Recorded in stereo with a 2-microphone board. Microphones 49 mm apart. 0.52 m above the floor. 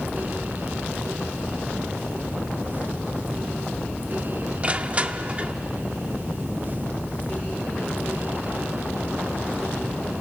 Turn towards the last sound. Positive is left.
turn(degrees=-30)  # may be behind; listen again after turning